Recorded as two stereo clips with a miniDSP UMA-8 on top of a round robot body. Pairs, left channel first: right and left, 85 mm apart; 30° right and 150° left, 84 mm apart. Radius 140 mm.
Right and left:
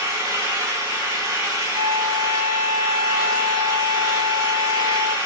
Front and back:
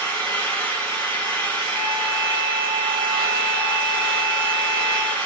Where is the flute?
65° left, 3.5 m.